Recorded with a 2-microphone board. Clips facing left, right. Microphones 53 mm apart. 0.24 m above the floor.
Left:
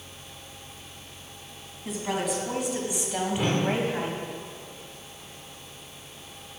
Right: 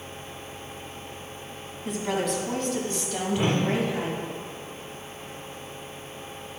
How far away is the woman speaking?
About 2 m.